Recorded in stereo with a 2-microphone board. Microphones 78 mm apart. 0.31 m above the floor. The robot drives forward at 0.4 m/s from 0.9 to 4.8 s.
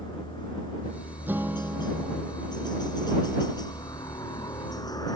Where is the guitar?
25° right (ahead or behind); by 2.3 s 20° right (ahead or behind).